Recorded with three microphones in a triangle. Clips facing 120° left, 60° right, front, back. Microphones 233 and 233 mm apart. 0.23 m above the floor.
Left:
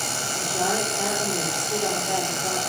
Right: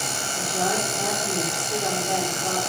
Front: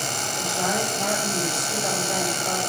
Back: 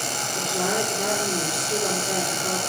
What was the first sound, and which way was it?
A woman speaking, 160° right.